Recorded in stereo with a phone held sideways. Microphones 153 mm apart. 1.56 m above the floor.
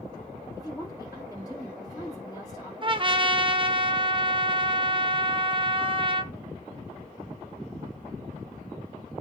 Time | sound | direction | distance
0.6 | a woman speaking | 25° left (ahead or behind) | 5 m
2.8 | a trumpet | 35° right (ahead or behind) | 0.7 m